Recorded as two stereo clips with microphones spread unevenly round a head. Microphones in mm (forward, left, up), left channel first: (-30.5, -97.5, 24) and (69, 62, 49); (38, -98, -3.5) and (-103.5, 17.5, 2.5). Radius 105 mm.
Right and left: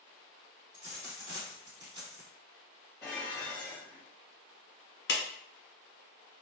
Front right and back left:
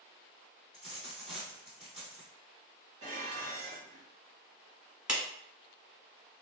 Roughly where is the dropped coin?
Ahead left.